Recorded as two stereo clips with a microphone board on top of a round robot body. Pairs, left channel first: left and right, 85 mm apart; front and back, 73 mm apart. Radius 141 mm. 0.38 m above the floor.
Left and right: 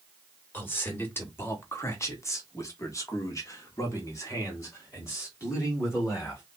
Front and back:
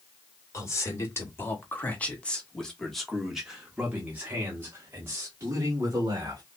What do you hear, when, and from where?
0.5 s a man speaking: 30° left, 2 m; by 6.4 s 145° left, 2.5 m